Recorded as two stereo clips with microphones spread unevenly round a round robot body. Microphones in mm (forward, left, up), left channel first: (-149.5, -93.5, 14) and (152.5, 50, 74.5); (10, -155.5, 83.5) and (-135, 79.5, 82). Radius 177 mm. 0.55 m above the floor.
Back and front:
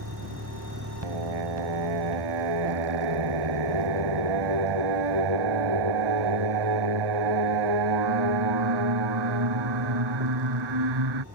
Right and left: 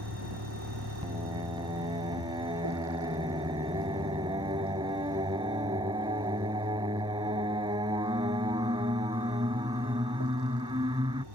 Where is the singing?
45° left.